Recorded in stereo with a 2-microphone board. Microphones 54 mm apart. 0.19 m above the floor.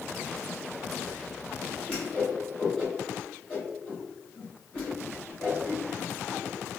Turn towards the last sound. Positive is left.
turn(degrees=15)  # may be behind; listen again after turning